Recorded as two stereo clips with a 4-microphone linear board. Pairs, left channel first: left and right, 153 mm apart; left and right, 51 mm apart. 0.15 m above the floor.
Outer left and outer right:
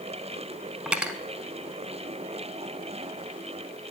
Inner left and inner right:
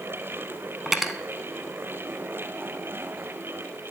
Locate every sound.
0.9 s cutlery clinking: 5° right (ahead or behind), 0.7 m